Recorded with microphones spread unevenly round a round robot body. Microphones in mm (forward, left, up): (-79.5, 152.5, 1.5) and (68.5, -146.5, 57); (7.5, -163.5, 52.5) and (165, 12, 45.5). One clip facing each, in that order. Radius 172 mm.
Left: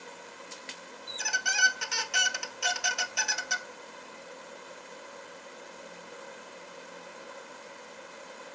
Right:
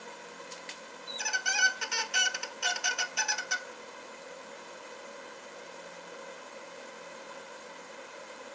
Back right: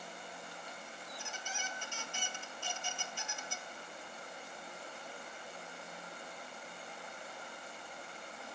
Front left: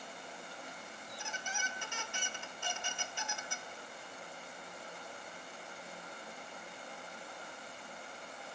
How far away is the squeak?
About 0.6 m.